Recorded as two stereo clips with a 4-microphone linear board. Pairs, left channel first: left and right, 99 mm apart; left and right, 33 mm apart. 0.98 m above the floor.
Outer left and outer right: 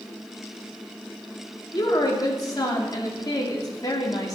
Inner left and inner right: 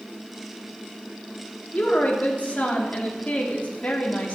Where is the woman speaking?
40° left (ahead or behind), 2.5 m.